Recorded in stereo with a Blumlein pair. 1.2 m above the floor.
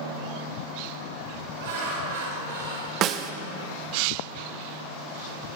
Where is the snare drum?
35° right, 0.8 m.